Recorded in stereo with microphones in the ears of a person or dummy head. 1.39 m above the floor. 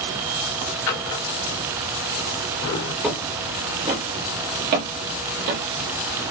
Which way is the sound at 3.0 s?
5° right (ahead or behind).